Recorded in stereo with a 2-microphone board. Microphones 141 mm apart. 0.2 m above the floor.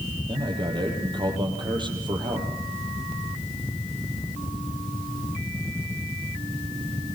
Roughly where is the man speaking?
Right.